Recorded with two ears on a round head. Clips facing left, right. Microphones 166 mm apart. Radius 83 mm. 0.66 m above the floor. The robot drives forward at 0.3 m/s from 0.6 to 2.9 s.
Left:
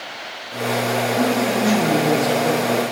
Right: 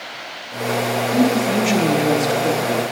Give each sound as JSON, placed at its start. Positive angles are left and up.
{"t": 1.1, "sound": "a woman speaking", "side_deg": -35, "distance_m": 0.8}